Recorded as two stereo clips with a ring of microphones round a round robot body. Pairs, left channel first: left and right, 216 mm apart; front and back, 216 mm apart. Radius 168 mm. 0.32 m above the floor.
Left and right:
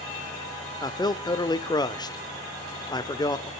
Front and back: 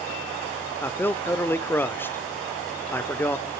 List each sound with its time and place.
0.8 s a man speaking: 60° left, 0.8 m